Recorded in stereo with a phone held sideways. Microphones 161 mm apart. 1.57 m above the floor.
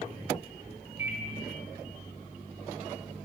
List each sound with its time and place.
1.0 s a microwave: 15° right (ahead or behind), 0.7 m